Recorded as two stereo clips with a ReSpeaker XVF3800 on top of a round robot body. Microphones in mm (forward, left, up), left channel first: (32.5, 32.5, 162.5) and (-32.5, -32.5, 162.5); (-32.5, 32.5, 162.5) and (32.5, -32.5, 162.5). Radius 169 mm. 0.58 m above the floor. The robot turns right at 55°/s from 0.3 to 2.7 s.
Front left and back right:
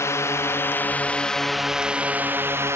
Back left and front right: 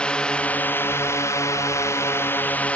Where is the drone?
65° left; by 2.8 s 165° right.